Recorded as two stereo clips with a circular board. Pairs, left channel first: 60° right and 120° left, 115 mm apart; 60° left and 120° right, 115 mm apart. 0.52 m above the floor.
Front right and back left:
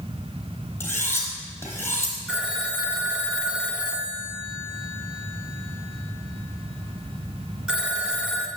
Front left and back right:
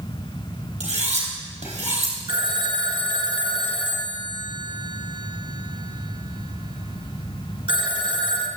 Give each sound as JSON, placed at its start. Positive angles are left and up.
{"t": 0.8, "sound": "cutlery clinking", "azimuth_deg": -125, "distance_m": 3.5}
{"t": 2.3, "sound": "a phone ringing", "azimuth_deg": -155, "distance_m": 1.0}